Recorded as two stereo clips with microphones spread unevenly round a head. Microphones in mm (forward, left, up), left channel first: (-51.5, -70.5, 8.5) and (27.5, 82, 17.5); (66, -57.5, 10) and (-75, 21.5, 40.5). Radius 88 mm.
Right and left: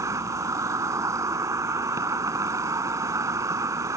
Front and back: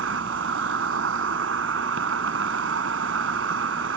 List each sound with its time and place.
0.0 s an insect: 135° left